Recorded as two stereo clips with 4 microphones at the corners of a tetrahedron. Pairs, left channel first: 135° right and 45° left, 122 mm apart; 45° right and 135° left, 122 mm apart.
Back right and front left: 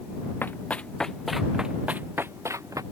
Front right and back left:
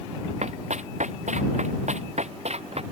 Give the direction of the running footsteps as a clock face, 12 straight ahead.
7 o'clock.